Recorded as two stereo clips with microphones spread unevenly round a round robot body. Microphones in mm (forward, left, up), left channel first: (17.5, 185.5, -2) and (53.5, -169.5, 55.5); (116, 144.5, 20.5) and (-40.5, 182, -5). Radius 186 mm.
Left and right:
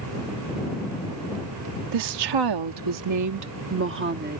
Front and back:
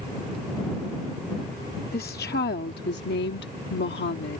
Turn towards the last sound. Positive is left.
turn(degrees=-15)